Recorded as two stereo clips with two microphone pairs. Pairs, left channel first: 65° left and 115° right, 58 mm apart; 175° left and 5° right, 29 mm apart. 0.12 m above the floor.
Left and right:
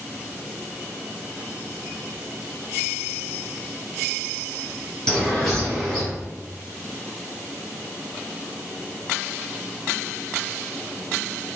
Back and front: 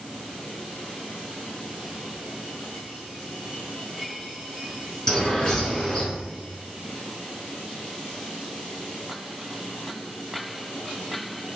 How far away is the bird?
About 1.8 m.